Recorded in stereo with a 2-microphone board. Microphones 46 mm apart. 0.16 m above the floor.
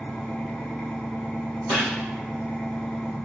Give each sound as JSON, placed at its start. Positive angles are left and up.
{"t": 0.0, "sound": "an engine running", "side_deg": 25, "distance_m": 1.0}
{"t": 1.7, "sound": "a gunshot", "side_deg": -15, "distance_m": 2.0}